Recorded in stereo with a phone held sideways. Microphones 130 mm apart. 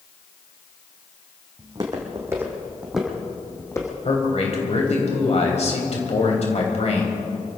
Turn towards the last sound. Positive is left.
turn(degrees=55)  # may be behind; listen again after turning